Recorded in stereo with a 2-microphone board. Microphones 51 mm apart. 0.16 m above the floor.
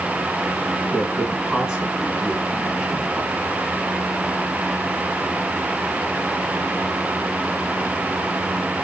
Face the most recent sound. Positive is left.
turn(degrees=-5)  # may be behind; listen again after turning